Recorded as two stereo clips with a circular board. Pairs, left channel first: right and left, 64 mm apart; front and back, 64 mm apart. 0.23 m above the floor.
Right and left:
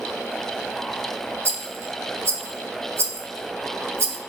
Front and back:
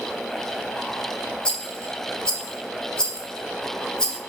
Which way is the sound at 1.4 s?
70° left.